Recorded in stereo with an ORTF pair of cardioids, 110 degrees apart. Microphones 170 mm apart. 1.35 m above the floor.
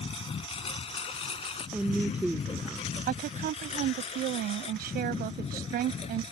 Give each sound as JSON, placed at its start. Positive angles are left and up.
{"t": 0.0, "sound": "a lawn mower", "azimuth_deg": 35}
{"t": 1.7, "sound": "a woman speaking", "azimuth_deg": -5}
{"t": 3.1, "sound": "a woman speaking", "azimuth_deg": -65}